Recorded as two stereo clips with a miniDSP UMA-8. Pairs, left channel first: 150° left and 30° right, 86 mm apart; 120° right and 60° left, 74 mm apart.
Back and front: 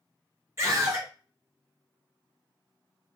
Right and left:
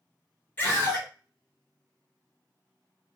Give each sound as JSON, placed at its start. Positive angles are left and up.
{"t": 0.6, "sound": "a scream", "azimuth_deg": -60, "distance_m": 1.8}